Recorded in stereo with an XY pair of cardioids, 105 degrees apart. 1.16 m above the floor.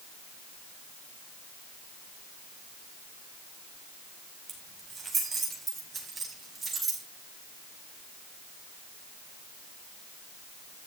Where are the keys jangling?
25° right, 4.5 m; by 7.0 s 30° right, 6.5 m.